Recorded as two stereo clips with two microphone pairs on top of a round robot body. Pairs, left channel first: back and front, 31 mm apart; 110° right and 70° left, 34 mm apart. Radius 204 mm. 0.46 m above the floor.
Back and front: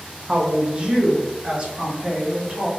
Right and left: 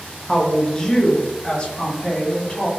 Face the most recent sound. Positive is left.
turn(degrees=-50)